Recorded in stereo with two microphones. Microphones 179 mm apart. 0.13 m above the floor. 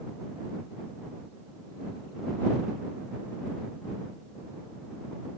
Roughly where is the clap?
I don't hear a clap.